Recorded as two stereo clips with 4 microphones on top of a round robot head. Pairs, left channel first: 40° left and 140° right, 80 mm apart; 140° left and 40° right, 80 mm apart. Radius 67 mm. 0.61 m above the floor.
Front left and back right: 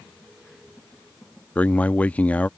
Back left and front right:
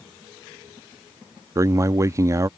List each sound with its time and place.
1.6 s a man speaking: 25° right